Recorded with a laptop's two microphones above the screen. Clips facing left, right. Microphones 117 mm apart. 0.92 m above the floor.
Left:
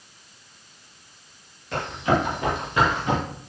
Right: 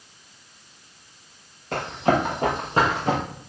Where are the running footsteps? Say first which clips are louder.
Right 2 dB; 45° right (ahead or behind), 7 m; by 3.2 s 35° right (ahead or behind), 6 m.